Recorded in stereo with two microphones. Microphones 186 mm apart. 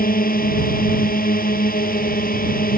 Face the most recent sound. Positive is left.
turn(degrees=50)  # may be behind; listen again after turning